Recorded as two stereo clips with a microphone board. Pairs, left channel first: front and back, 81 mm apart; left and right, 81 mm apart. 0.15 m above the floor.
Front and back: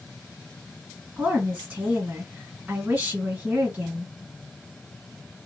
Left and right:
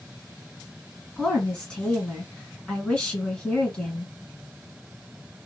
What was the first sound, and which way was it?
A woman speaking, 150° left.